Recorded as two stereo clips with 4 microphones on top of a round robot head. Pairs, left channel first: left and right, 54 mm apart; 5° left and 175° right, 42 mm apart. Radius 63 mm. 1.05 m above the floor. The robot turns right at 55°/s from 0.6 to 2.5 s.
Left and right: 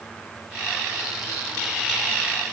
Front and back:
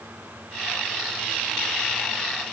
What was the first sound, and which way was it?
Only background noise.